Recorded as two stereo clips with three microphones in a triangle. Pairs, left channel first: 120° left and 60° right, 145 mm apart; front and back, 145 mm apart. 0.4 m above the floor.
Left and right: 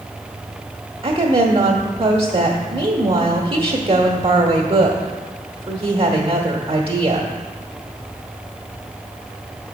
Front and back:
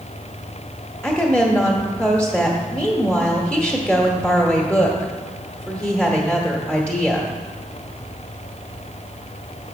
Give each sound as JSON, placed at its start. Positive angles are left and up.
{"t": 1.0, "sound": "a woman speaking", "azimuth_deg": -80, "distance_m": 1.1}